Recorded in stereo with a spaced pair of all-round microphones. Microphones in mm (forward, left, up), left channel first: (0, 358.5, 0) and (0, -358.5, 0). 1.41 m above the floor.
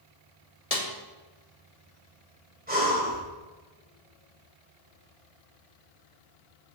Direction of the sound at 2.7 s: 15° right (ahead or behind).